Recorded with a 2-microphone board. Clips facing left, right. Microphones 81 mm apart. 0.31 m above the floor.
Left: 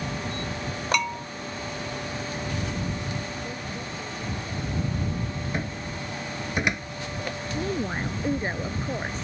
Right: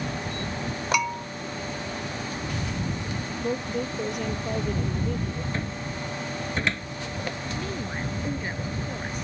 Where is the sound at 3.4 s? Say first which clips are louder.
Right 6 dB; 80° right.